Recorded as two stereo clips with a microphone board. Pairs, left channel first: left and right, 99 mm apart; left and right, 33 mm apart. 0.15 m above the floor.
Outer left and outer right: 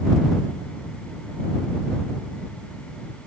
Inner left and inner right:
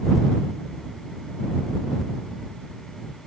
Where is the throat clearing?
I don't hear throat clearing.